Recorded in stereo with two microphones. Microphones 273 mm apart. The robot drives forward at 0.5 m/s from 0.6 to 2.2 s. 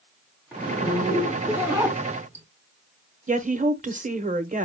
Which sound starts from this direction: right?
A woman speaking, at 3.3 s.